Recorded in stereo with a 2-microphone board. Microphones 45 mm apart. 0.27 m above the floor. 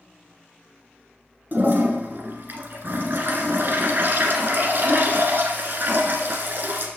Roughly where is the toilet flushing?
Right.